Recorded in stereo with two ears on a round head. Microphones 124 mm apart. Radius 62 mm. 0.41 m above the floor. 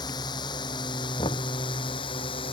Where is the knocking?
30° left (ahead or behind).